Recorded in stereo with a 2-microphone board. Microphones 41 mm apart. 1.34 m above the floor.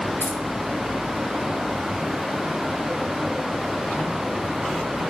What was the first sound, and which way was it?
Keys jangling, 65° left (ahead or behind).